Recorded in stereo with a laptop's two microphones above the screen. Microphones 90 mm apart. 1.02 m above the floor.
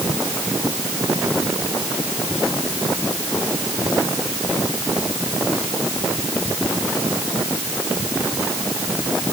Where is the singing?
No singing in this recording.